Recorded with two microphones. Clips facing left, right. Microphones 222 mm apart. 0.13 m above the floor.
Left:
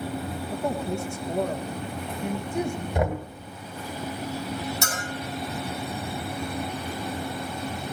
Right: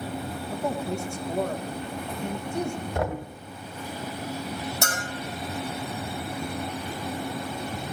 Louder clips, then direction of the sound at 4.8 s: Right 1 dB; 55° right (ahead or behind).